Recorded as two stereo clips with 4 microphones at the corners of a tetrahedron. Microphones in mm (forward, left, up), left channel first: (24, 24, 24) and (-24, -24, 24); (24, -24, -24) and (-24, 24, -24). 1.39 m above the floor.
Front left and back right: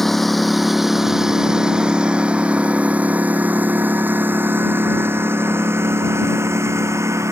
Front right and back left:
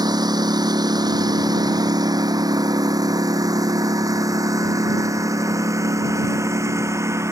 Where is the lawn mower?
130° left; by 7.3 s straight behind.